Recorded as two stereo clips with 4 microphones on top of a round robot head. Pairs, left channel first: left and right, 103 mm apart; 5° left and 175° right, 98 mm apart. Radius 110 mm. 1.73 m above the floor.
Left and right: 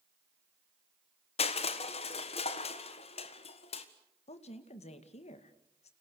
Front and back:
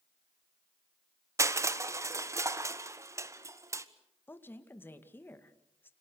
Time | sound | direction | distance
1.4 | crushing | 125° left | 1.5 m
4.3 | a woman speaking | 75° left | 2 m